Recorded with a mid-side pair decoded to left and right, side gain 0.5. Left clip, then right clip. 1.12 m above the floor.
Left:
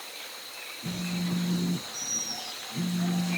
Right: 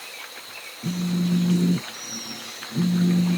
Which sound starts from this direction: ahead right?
A phone buzzing, at 0.8 s.